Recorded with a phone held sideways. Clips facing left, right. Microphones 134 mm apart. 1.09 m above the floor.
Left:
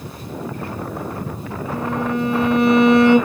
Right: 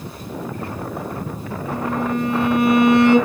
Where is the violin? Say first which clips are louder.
Even; centre (ahead or behind), 1.8 m.